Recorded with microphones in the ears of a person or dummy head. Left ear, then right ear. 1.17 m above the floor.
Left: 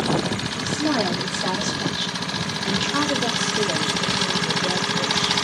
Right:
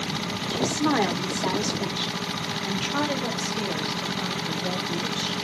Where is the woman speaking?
40° right (ahead or behind), 0.7 m; by 5.3 s 40° left (ahead or behind), 2.5 m.